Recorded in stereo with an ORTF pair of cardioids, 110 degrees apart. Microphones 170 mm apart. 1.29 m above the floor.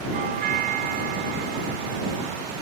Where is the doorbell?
65° right.